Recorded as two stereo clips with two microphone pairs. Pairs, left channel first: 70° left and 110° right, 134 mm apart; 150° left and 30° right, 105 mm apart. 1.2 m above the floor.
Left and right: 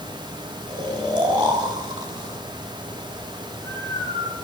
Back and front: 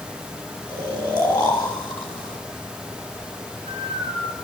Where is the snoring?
165° right, 7.5 m.